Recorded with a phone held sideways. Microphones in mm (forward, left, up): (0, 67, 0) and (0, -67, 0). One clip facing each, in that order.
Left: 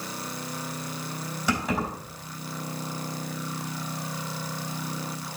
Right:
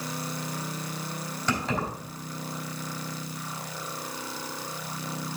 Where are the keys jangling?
10° left (ahead or behind), 3.5 m.